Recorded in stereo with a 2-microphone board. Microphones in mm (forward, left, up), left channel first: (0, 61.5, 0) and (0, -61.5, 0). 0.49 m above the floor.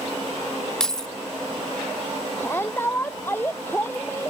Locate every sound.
0.8 s keys jangling: 5° left (ahead or behind)
2.4 s a shout: 15° left (ahead or behind)